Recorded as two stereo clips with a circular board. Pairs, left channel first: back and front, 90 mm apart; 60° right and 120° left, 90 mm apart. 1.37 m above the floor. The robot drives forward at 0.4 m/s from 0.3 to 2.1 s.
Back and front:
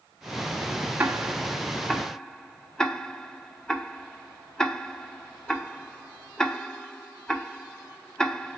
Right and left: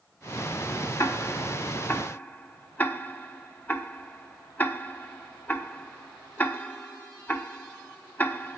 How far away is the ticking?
About 1.0 m.